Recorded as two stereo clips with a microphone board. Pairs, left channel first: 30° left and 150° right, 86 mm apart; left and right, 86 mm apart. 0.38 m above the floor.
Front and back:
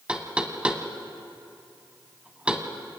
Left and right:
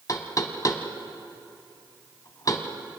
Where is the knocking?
135° left, 1.5 m.